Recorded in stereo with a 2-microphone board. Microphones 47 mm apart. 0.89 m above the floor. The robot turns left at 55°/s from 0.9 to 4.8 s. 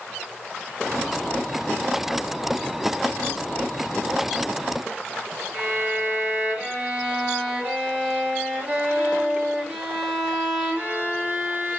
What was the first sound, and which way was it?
A violin, 25° right (ahead or behind).